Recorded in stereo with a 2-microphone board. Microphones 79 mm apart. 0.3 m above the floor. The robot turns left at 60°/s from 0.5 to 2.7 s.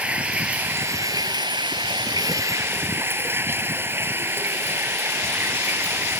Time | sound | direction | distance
0.0 | running water | 15° right | ?